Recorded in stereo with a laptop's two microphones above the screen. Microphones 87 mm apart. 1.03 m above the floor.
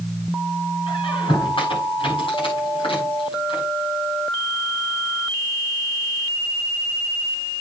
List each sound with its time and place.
0.9 s a squeak: 80° left, 7 m